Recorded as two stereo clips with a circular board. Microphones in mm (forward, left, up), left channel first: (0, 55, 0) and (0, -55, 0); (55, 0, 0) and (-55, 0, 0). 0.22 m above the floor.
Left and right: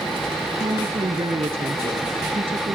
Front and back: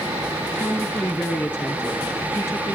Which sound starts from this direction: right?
A woman speaking, at 0.6 s.